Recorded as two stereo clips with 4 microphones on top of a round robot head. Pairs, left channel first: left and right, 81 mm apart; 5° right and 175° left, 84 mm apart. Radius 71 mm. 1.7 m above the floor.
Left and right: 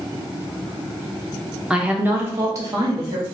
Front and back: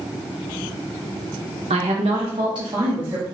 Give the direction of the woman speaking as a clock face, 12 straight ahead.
6 o'clock.